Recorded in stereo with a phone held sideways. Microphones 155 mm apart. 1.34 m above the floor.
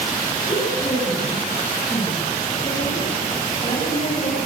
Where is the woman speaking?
45° left (ahead or behind), 9.5 m.